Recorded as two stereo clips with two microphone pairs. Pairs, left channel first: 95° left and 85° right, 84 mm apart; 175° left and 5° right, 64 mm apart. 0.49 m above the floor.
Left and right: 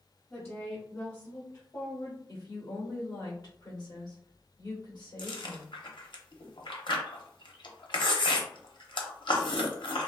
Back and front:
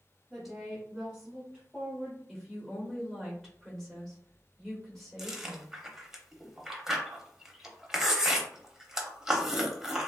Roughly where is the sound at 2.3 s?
Left.